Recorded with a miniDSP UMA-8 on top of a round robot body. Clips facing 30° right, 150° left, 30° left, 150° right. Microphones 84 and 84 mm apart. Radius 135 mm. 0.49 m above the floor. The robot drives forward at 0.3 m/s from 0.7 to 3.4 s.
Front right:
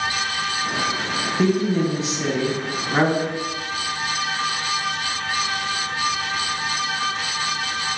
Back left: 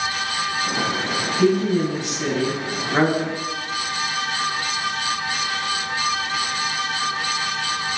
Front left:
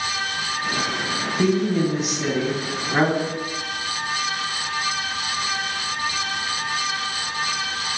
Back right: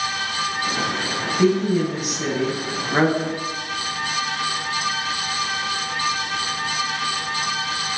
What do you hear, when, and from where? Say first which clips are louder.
1.4 s a woman speaking: back left 2 dB, back right 2 dB; 40° right, 0.9 m; by 3.3 s 125° right, 0.9 m